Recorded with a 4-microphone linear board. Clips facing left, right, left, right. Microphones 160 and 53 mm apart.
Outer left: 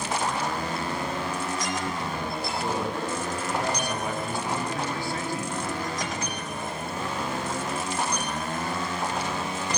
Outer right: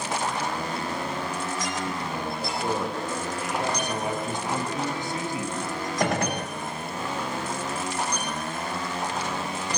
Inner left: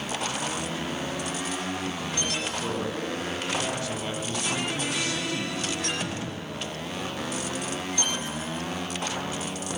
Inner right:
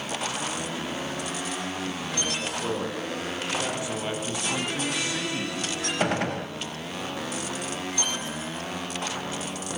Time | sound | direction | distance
2.4 | a man speaking | 15° right (ahead or behind) | 6.5 m
3.8 | a man speaking | 20° right (ahead or behind) | 2.5 m
6.0 | a gunshot | 60° right (ahead or behind) | 0.6 m